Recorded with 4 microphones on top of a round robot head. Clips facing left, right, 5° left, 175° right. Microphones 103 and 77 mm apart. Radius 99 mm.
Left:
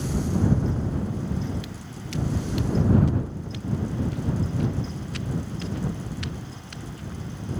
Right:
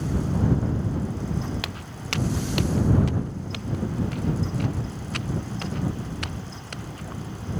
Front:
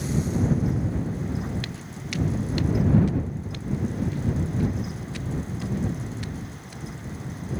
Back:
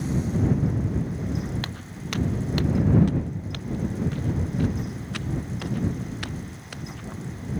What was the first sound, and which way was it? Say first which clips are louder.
Footsteps: right 2 dB, back 1 dB; 120° right.